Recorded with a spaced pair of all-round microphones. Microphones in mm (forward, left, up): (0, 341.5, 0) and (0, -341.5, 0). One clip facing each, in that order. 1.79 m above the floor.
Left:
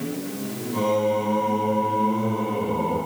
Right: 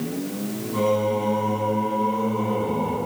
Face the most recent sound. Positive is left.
turn(degrees=-40)  # may be behind; listen again after turning